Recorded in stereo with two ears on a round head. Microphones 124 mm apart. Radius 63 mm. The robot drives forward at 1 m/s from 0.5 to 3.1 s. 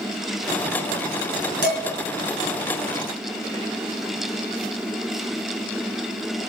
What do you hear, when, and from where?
1.6 s dishes clattering: 80° right, 3.5 m; by 1.8 s 85° right, 3.5 m